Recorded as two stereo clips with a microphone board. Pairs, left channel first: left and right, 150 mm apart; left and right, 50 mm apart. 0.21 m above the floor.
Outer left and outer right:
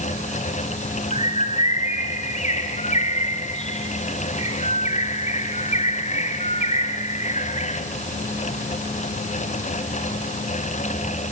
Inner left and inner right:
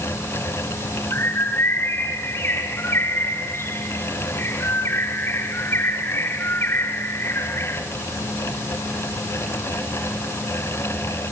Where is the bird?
50° left (ahead or behind), 3.5 m.